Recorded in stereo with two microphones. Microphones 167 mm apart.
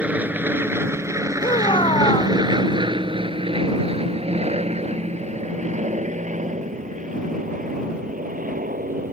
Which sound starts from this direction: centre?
An aircraft, at 0.0 s.